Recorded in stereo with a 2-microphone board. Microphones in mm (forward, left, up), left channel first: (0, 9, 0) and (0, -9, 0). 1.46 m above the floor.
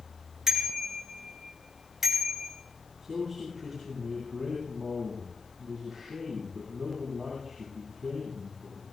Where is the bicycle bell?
30° right (ahead or behind), 5 m; by 2.5 s 15° right (ahead or behind), 6.5 m.